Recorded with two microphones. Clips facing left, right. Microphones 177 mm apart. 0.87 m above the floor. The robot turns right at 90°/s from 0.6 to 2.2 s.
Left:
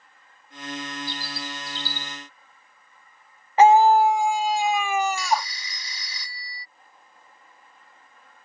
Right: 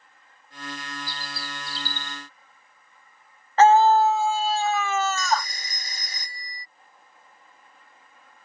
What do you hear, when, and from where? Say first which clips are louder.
1.1 s a bird: left 4 dB; 155° left; by 2.2 s 105° right
3.6 s a scream: left 1 dB; 15° left (ahead or behind)
5.2 s a phone ringing: left 1 dB; 45° right (ahead or behind)